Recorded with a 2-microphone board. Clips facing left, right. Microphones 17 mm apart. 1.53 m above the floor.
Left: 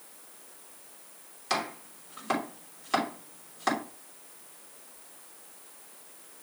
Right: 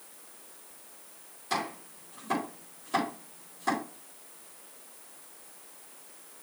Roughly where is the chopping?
Left.